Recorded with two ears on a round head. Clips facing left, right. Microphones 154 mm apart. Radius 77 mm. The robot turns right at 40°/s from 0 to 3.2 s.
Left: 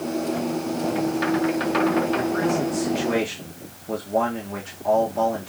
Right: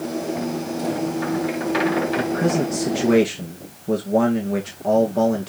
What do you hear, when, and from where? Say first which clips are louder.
2.2 s a man speaking: right 2 dB; 145° right, 1.8 m; by 5.5 s 105° right, 1.8 m